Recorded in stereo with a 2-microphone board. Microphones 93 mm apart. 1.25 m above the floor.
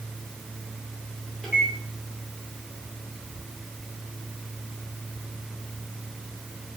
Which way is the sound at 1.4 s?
5° right (ahead or behind).